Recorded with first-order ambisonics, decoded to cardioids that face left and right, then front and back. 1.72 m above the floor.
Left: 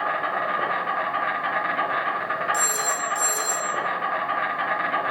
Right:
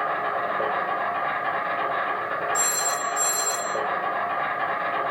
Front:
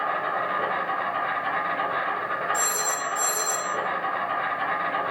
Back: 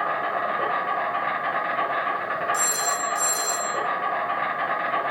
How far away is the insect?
About 1.0 m.